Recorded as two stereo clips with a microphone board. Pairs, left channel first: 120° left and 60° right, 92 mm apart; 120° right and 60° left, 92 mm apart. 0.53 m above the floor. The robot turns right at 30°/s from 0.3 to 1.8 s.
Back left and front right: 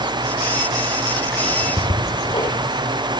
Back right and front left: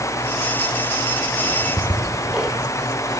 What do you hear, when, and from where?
1.4 s ticking: 135° left, 4 m; by 2.6 s 145° left, 4 m